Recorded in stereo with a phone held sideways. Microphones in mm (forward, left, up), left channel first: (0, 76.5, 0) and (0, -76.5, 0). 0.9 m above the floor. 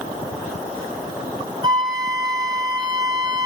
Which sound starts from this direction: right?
A flute, at 1.6 s.